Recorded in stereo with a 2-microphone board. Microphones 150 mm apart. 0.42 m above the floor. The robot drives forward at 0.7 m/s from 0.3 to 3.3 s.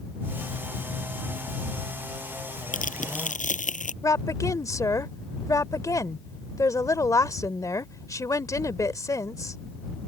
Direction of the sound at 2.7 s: 65° left (ahead or behind).